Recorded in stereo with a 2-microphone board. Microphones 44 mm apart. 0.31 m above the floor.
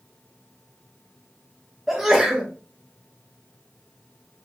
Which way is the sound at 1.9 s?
5° right (ahead or behind).